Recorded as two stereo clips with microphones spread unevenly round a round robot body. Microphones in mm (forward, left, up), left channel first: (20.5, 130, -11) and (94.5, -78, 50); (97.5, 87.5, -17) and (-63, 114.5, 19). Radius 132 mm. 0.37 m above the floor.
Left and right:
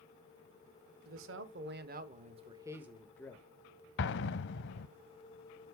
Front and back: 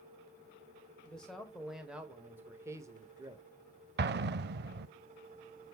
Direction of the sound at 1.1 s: 80° right.